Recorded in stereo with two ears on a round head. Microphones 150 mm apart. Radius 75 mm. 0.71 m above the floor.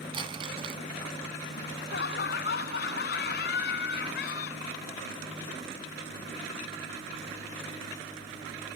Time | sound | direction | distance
0.1 | crumpling | 30° right (ahead or behind) | ?
1.6 | laughter | 70° left (ahead or behind) | ?